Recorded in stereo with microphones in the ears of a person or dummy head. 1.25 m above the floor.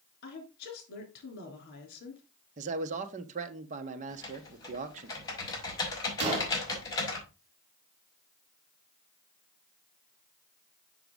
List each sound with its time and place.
0.2 s a woman speaking: 55° left (ahead or behind), 3.5 m
2.6 s a man speaking: 45° right (ahead or behind), 1.1 m
4.1 s typing on a keyboard: 20° left (ahead or behind), 4 m
6.2 s a gunshot: 30° right (ahead or behind), 3.5 m